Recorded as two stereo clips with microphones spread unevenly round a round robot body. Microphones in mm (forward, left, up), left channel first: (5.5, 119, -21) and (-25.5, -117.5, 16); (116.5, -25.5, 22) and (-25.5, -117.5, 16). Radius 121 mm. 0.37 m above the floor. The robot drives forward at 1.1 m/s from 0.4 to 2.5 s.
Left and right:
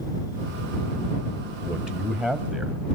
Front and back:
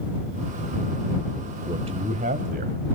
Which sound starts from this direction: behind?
A man speaking, at 1.6 s.